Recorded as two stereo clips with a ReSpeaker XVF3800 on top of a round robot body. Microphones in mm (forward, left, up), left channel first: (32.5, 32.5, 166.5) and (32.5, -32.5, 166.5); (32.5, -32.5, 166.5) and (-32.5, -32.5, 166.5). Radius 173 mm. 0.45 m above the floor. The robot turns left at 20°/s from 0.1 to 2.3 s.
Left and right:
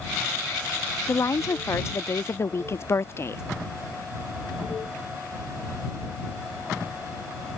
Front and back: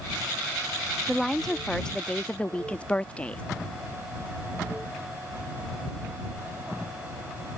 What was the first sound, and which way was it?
A woman speaking, 90° left.